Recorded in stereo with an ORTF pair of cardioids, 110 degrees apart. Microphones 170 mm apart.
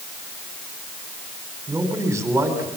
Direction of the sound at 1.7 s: 15° right.